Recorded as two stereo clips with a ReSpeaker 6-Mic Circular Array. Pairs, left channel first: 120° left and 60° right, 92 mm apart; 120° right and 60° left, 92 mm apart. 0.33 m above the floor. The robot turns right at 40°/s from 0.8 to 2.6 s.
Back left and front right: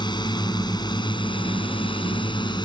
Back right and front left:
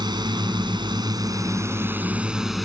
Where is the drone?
90° left; by 2.7 s 150° left.